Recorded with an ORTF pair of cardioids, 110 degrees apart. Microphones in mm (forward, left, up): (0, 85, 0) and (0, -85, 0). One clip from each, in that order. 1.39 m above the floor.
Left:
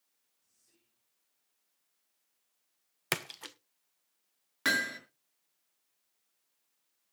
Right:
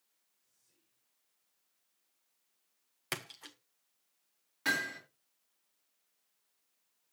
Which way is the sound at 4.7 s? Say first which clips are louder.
Left 3 dB; 55° left.